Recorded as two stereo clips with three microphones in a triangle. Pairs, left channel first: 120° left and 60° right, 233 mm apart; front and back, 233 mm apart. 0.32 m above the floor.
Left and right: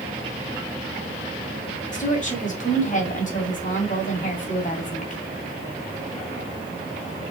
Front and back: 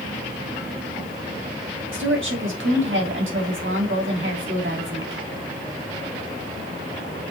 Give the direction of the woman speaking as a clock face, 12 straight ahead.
6 o'clock.